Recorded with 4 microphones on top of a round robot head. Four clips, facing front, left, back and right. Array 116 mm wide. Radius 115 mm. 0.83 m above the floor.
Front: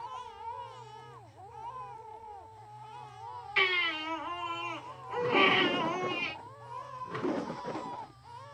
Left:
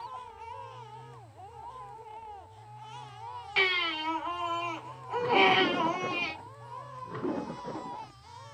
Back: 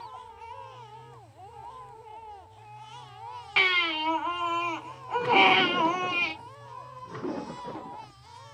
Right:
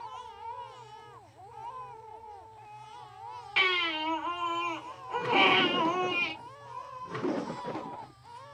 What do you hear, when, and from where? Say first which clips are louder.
3.6 s a baby crying: right 1 dB, back 4 dB; 170° left, 3.5 m